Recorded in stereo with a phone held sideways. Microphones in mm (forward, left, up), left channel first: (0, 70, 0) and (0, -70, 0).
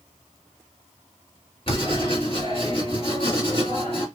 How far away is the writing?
About 1.8 m.